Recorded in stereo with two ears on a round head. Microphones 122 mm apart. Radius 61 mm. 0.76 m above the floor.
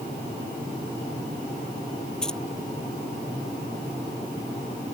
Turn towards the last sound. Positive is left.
turn(degrees=5)  # may be behind; listen again after turning